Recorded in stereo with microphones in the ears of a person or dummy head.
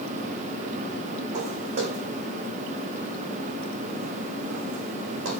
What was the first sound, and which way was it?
Footsteps, 40° right (ahead or behind).